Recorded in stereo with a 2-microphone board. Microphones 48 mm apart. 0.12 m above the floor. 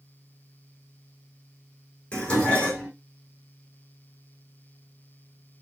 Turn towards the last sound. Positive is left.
turn(degrees=25)  # may be behind; listen again after turning